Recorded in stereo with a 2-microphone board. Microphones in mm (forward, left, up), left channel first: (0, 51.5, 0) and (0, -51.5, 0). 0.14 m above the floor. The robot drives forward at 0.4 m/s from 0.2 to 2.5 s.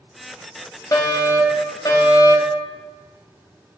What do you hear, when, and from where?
0.9 s a fire alarm: 35° left (ahead or behind), 3 m